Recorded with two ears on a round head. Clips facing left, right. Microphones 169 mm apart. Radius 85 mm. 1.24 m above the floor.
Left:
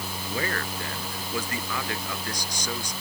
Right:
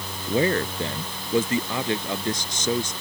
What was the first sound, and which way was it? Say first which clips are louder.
A man speaking: right 10 dB; 20° right (ahead or behind).